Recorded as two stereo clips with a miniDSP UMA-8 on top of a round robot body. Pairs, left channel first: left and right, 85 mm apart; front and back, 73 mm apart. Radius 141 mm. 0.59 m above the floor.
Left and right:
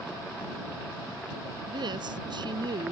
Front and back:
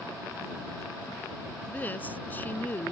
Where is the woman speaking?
65° right.